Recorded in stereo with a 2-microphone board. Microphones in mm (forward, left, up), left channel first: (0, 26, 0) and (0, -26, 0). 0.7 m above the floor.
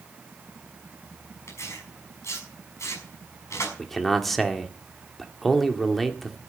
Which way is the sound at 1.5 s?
80° left.